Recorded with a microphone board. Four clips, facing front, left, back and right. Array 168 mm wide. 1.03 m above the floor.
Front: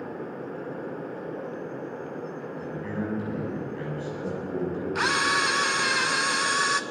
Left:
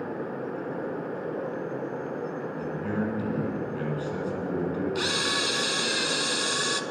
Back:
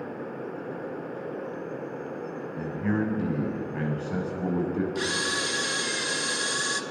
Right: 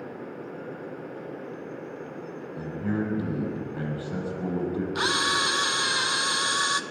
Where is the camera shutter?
30° right, 1.0 m.